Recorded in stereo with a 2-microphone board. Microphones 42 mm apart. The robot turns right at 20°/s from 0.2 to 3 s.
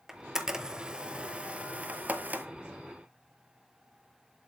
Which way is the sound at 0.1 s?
10° right (ahead or behind).